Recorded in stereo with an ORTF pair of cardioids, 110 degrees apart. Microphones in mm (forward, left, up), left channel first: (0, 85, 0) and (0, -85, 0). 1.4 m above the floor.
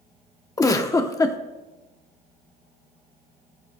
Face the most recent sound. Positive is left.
turn(degrees=20)